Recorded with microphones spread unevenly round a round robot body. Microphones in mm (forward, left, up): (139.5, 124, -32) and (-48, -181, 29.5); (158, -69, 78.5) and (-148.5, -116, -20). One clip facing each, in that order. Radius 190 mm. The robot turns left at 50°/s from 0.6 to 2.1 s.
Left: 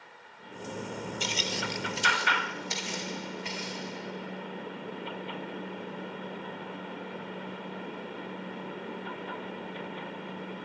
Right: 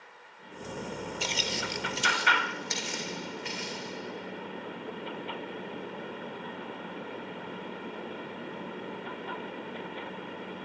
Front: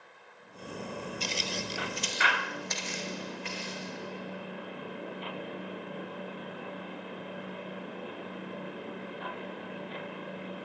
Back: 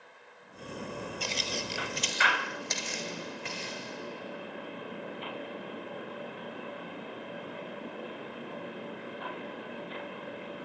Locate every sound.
1.2 s footsteps: 5° right, 0.9 m; by 3.9 s 170° left, 3.5 m